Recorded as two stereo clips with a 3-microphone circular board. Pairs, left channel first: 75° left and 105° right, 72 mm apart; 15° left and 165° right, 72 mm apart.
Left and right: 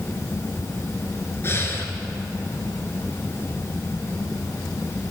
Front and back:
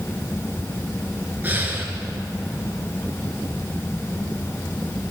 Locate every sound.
1.4 s breathing: 130° left, 1.3 m